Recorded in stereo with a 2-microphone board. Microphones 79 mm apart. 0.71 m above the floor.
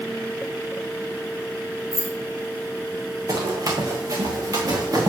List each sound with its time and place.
1.9 s keys jangling: 45° right (ahead or behind), 3.5 m
3.3 s running footsteps: 50° right (ahead or behind), 2.5 m; by 5.1 s 45° right (ahead or behind), 3.5 m